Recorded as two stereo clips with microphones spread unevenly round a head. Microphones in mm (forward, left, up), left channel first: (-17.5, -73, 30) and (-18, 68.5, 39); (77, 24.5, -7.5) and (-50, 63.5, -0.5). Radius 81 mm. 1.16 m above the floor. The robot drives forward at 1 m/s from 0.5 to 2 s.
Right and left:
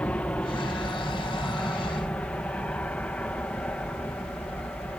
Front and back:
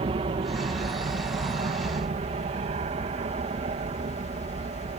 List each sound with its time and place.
0.0 s an aircraft: 165° right